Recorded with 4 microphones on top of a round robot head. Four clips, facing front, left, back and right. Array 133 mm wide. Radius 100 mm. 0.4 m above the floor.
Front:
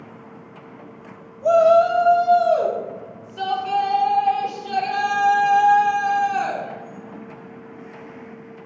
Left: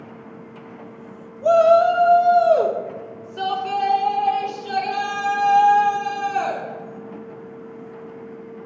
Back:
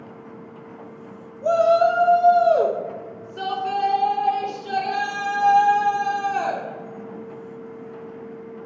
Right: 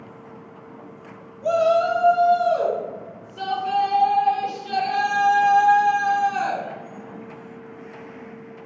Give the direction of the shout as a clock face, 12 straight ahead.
9 o'clock.